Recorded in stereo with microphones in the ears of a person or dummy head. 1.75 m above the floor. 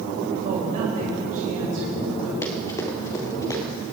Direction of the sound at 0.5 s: 40° right (ahead or behind).